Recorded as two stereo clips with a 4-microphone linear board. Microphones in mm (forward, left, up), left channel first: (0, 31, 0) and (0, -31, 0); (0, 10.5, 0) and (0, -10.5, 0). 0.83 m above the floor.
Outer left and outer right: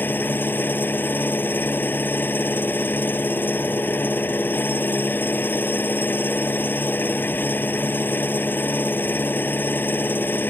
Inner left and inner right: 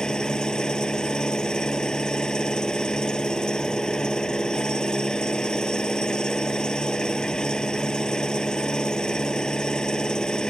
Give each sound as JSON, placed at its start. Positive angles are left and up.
{"t": 0.0, "sound": "an engine running", "side_deg": 35}